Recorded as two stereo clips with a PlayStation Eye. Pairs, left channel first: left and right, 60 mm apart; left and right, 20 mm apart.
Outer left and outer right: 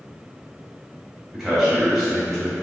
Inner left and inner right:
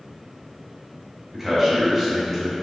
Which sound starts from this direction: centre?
A man speaking, at 1.3 s.